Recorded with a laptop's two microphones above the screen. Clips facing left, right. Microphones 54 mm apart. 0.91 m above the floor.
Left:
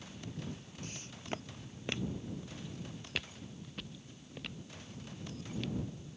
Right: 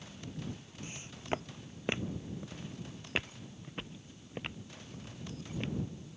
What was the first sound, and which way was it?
Footsteps, 20° right (ahead or behind).